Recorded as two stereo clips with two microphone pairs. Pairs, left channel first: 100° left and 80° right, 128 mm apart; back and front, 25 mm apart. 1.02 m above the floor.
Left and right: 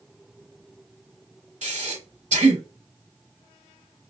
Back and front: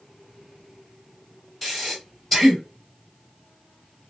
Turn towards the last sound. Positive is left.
turn(degrees=-80)